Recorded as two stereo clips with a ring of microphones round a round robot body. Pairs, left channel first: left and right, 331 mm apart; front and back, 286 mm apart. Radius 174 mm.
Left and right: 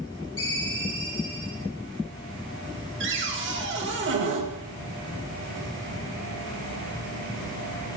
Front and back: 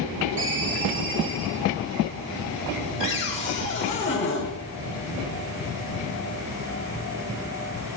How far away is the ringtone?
About 4 m.